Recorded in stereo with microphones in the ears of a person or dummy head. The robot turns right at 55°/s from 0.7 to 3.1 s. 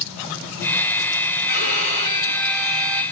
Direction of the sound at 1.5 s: 130° left.